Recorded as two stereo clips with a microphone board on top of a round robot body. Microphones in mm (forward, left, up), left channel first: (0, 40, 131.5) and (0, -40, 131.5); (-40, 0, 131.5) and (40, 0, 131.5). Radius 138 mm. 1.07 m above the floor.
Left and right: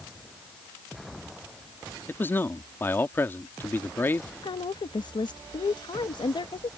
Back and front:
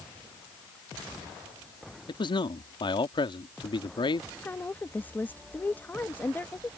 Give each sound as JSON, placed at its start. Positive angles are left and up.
{"t": 2.1, "sound": "a man speaking", "azimuth_deg": 155}
{"t": 4.4, "sound": "a woman speaking", "azimuth_deg": 110}